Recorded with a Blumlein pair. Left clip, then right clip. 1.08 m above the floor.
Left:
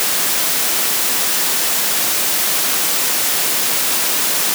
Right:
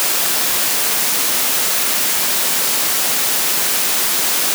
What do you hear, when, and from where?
Only background noise.